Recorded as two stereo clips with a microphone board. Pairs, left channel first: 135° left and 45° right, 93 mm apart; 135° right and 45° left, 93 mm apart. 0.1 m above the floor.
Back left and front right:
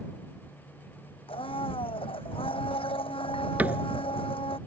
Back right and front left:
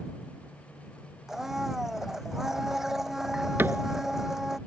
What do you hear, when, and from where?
1.3 s a blender: 130° left
3.6 s a cupboard door: 10° left